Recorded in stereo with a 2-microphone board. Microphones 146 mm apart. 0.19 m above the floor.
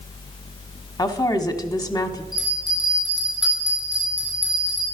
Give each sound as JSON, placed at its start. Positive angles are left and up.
{"t": 1.0, "sound": "a woman speaking", "side_deg": 25, "distance_m": 1.1}
{"t": 2.3, "sound": "a bell", "side_deg": 25, "distance_m": 7.0}